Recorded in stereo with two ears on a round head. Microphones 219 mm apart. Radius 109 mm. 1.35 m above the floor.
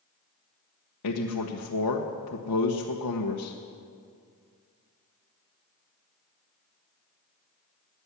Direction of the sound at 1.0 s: 80° left.